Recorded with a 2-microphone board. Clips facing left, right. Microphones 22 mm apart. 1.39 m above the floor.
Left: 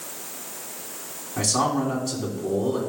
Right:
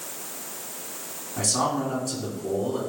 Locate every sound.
1.4 s a man speaking: 30° left (ahead or behind), 3 m